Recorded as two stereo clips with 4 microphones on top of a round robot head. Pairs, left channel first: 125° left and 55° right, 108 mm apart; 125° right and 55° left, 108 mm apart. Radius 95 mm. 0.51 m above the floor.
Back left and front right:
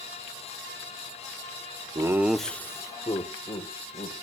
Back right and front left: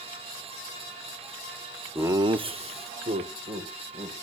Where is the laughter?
5° right, 1.0 m; by 4.1 s 85° left, 2.5 m.